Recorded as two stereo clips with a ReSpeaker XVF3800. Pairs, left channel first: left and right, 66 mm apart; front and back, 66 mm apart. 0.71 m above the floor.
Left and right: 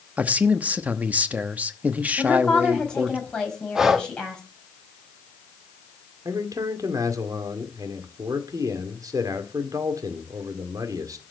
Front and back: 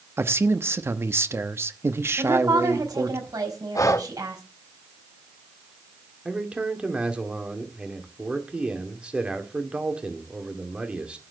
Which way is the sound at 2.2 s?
165° left.